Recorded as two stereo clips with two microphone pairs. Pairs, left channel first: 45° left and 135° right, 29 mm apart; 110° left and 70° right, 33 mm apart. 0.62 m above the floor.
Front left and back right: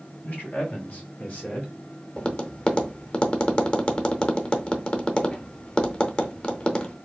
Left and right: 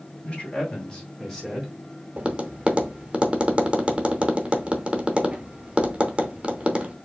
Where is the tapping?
10° right, 0.7 m.